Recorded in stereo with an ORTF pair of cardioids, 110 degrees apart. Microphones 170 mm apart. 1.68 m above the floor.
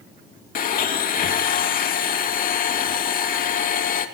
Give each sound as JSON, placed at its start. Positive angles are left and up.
{"t": 0.6, "sound": "a blender", "azimuth_deg": 55, "distance_m": 2.5}